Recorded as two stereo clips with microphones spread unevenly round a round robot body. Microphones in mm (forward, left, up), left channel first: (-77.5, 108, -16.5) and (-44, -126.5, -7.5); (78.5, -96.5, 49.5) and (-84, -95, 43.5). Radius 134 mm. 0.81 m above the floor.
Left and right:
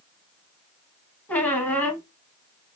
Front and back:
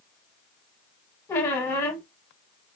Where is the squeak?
20° left, 0.7 m.